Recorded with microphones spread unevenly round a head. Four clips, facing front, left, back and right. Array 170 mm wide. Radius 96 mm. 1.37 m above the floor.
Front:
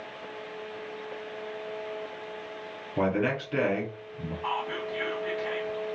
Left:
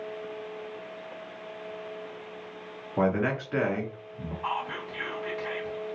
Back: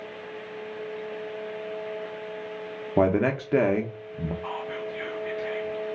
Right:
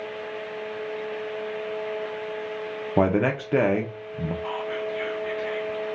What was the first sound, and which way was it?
A man speaking, 130° right.